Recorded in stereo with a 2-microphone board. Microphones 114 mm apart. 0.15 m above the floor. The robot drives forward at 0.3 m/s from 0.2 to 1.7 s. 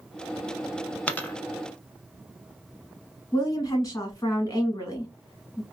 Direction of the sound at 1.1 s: 15° left (ahead or behind).